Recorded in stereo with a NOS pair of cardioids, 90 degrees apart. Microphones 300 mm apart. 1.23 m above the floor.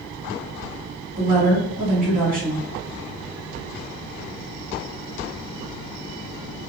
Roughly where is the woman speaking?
Ahead right.